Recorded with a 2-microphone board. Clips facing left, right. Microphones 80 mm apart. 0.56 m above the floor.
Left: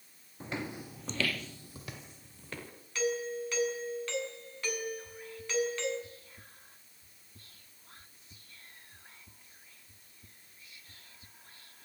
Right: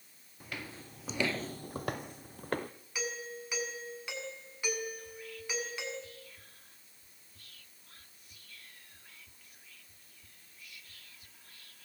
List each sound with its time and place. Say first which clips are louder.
0.4 s footsteps: left 6 dB; 25° left (ahead or behind), 1.5 m; by 2.7 s 50° right (ahead or behind), 2.5 m
3.0 s a doorbell: left 8 dB; 10° right (ahead or behind), 7 m
5.0 s whispering: left 1 dB; 30° left (ahead or behind), 1.1 m